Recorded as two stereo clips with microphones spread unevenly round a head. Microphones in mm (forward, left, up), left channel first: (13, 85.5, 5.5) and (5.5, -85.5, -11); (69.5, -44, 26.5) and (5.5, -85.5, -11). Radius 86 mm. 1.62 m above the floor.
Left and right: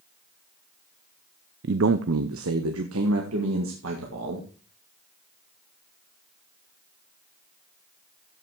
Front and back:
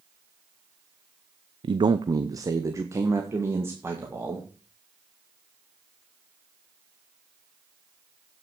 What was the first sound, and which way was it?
A man speaking, 120° right.